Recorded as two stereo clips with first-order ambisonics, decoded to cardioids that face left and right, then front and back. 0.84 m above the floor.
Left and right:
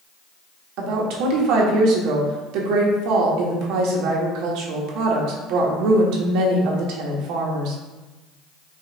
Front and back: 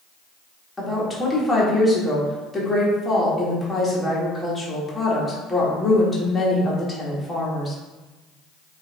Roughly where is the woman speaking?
Right.